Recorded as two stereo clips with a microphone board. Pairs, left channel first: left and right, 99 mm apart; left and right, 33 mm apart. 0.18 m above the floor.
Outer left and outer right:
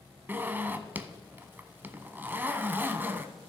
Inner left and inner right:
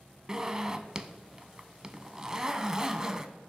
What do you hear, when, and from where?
0.3 s a zipper: 20° right (ahead or behind), 0.6 m